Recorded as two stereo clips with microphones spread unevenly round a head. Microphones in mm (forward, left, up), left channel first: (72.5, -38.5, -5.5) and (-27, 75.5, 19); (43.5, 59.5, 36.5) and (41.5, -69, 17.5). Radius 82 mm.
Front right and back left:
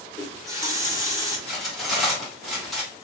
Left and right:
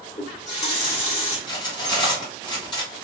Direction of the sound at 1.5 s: 45° left.